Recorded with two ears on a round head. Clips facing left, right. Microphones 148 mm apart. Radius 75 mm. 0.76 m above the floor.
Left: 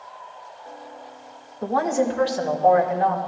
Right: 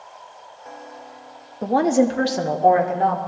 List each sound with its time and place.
1.6 s a woman speaking: 25° right (ahead or behind), 1.0 m; by 3.2 s 55° right (ahead or behind), 2.5 m